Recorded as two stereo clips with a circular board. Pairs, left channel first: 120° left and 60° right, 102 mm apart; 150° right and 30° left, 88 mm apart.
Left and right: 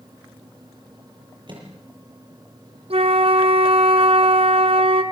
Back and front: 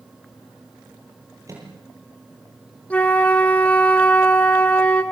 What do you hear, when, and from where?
1.5 s a microwave: 20° right, 8.5 m
2.9 s a flute: 75° right, 2 m